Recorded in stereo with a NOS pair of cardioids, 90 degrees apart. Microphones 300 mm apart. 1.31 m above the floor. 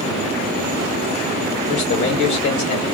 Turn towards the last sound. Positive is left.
turn(degrees=65)